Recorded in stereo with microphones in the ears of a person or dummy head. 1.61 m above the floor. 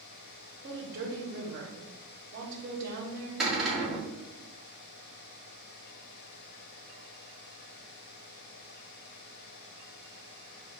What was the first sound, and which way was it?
A woman speaking, 45° right (ahead or behind).